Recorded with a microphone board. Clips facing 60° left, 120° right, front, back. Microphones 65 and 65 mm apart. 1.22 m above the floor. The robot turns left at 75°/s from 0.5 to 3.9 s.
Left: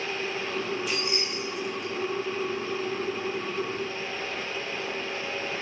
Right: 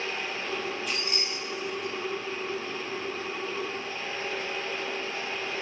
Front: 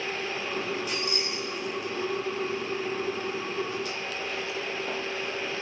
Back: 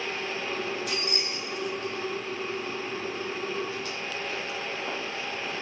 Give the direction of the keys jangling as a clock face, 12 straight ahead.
7 o'clock.